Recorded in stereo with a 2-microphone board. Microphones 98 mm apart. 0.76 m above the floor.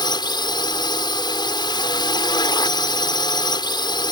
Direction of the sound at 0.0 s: 50° left (ahead or behind).